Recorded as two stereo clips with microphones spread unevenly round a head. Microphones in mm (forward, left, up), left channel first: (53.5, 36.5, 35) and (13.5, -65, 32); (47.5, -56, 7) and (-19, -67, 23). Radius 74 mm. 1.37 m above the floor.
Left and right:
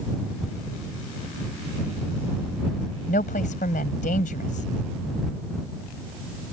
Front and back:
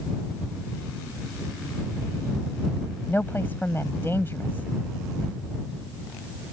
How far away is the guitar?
I don't hear a guitar.